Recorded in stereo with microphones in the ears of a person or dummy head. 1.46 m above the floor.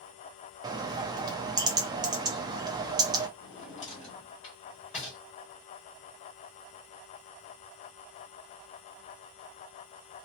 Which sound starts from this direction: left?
A drawer, at 3.4 s.